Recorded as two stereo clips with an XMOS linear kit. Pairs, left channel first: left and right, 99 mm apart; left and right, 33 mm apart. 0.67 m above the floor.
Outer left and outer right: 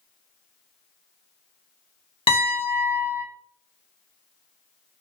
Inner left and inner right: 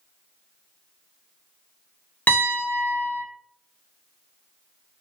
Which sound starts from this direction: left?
A piano, at 2.3 s.